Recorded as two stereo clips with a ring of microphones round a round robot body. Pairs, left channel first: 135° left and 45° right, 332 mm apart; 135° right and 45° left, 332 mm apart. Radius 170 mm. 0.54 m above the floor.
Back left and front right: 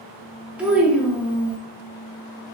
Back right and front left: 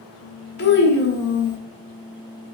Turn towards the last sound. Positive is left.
turn(degrees=-130)